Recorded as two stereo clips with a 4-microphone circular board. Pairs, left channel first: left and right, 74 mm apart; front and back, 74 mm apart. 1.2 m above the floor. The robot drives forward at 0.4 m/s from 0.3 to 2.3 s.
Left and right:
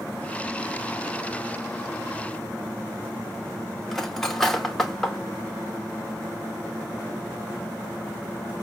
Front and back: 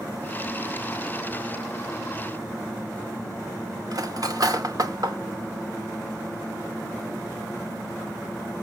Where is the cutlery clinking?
175° left, 0.7 m.